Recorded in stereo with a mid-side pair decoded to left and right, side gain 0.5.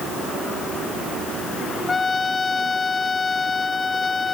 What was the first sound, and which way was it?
A trumpet, 30° left.